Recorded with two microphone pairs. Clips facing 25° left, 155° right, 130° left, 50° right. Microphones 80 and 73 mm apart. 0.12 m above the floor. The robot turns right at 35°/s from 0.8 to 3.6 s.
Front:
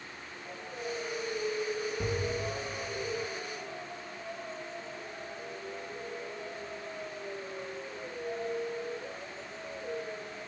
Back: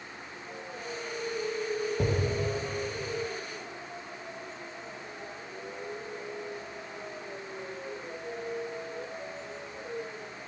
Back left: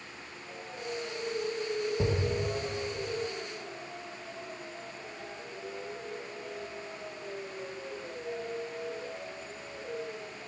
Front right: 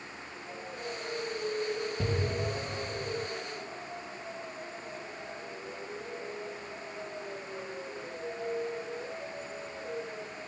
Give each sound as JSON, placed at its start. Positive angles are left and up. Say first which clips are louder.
{"t": 2.0, "sound": "an explosion", "louder": "back 4 dB, back left 2 dB", "azimuth_deg": -160, "distance_m": 0.6}